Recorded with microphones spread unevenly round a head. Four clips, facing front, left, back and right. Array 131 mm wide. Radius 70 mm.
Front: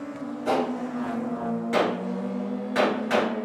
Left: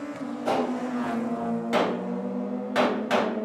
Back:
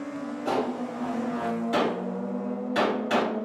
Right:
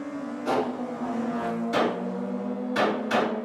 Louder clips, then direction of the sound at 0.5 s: Left 1 dB, front 3 dB; 105° left.